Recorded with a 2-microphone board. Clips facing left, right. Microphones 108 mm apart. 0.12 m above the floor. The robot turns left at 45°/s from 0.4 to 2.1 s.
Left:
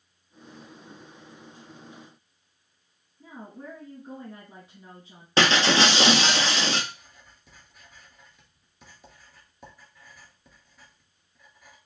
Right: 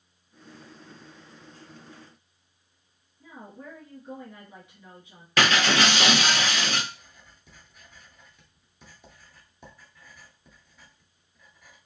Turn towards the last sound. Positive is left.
turn(degrees=0)  # may be behind; listen again after turning